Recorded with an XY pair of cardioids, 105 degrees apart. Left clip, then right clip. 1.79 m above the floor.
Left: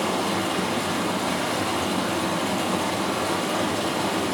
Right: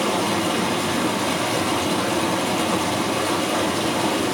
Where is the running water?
60° right, 7 m.